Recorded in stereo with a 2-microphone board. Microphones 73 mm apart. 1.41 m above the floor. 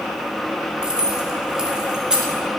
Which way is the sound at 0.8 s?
10° right (ahead or behind).